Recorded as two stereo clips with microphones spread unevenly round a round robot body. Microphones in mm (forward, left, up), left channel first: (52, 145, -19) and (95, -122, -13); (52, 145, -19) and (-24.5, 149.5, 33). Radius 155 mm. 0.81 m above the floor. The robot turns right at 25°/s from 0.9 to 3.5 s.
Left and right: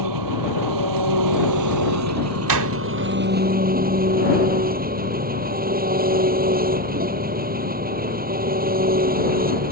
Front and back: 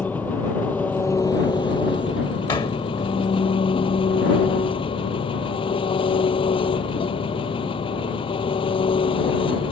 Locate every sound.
0.0 s an engine running: 90° right; by 9.7 s 25° right
2.5 s a door slam: 75° right; by 3.2 s 60° right